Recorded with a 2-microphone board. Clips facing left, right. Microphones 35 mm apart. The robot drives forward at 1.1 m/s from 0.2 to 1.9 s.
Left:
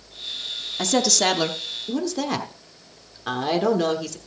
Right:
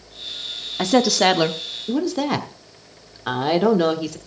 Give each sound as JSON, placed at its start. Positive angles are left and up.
{"t": 0.8, "sound": "a woman speaking", "side_deg": -20, "distance_m": 1.0}